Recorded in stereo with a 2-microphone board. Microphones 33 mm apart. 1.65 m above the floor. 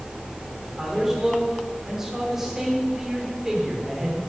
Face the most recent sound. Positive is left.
turn(degrees=-10)  # may be behind; listen again after turning